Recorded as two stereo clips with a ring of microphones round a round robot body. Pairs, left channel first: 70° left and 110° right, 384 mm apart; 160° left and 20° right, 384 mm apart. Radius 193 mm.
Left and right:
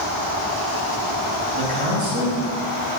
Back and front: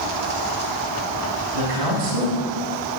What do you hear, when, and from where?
1.5 s a man speaking: 45° right, 3 m